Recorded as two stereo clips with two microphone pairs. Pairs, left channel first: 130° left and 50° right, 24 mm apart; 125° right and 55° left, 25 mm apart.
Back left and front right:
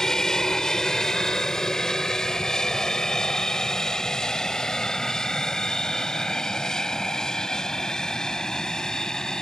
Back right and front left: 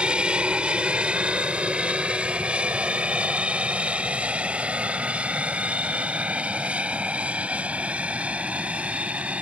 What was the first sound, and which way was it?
An aircraft, 75° left.